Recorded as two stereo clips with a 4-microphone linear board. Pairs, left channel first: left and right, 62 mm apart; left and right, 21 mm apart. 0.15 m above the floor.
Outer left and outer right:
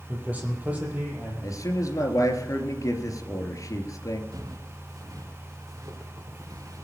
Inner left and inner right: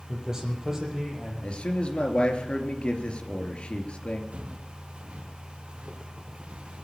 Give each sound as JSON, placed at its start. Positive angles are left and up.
{"t": 0.1, "sound": "a man speaking", "side_deg": -25, "distance_m": 5.0}
{"t": 1.4, "sound": "a man speaking", "side_deg": 60, "distance_m": 3.0}
{"t": 4.3, "sound": "footsteps", "side_deg": -75, "distance_m": 2.5}